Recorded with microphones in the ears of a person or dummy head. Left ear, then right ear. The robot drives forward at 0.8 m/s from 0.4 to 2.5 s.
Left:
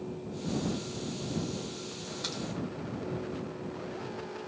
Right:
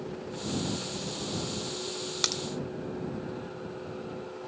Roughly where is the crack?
Right.